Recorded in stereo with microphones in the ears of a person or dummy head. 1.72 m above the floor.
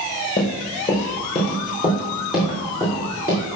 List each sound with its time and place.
0.4 s running footsteps: 10° left (ahead or behind), 1.8 m; by 3.4 s 15° right (ahead or behind), 3.5 m